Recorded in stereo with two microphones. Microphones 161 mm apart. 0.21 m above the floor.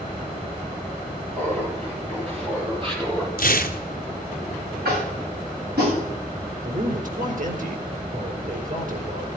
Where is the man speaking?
60° right (ahead or behind), 3.5 m.